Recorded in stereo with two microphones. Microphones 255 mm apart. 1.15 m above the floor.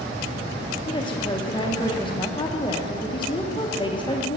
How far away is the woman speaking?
About 0.8 m.